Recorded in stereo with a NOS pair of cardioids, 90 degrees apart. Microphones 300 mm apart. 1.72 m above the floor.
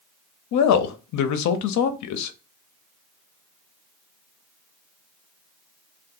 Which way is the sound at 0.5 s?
70° left.